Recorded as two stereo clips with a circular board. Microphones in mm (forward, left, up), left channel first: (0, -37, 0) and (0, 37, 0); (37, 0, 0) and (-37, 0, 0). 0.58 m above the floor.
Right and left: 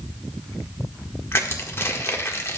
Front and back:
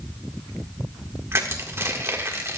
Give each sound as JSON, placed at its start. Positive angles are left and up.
{"t": 1.3, "sound": "crushing", "azimuth_deg": -135, "distance_m": 1.4}